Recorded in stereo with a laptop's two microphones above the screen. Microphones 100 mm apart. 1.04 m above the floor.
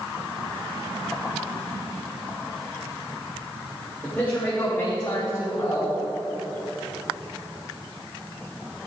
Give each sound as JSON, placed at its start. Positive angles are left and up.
{"t": 4.0, "sound": "a man speaking", "side_deg": 20, "distance_m": 2.5}